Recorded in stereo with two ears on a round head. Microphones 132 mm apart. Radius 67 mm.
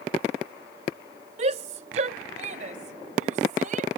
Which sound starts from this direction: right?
A shout, at 1.4 s.